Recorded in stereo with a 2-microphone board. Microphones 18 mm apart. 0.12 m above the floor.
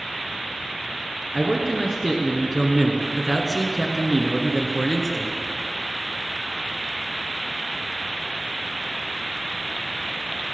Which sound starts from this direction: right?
A man speaking, at 1.3 s.